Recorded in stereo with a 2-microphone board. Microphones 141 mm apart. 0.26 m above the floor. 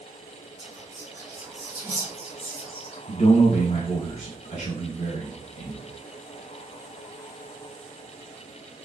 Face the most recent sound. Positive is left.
turn(degrees=55)  # may be behind; listen again after turning